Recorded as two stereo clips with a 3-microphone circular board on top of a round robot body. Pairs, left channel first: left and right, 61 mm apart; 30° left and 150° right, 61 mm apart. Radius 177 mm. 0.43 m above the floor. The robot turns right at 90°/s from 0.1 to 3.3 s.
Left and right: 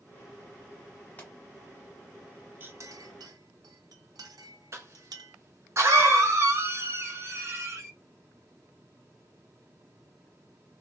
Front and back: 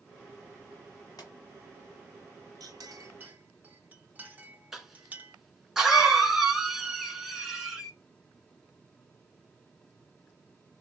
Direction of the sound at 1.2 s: 25° left.